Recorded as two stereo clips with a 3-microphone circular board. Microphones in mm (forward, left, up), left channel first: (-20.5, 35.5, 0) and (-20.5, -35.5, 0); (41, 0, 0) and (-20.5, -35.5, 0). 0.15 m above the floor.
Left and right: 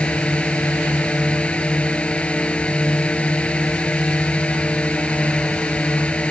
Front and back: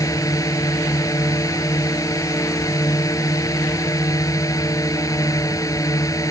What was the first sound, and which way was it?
A drone, 20° left.